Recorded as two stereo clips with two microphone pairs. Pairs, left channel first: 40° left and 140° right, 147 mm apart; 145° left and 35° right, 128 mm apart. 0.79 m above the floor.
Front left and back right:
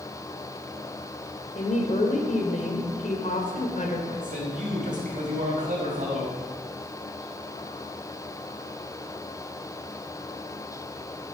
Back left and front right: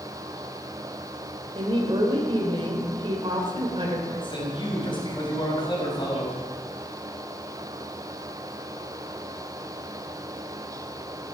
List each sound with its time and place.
1.6 s a woman speaking: 10° left, 3 m
4.1 s a man speaking: 165° right, 4.5 m